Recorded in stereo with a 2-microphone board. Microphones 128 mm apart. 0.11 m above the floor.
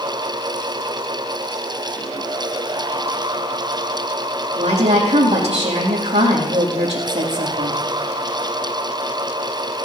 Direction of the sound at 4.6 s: 50° right (ahead or behind).